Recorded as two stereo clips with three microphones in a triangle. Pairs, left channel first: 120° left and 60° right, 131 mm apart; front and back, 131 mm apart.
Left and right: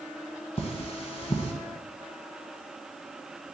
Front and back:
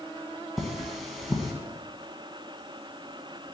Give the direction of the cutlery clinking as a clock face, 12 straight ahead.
9 o'clock.